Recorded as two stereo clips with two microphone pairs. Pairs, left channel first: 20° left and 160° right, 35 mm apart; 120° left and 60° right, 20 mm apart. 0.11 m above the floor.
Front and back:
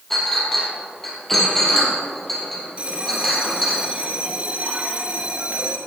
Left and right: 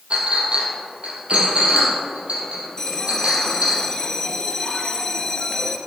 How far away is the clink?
About 3 m.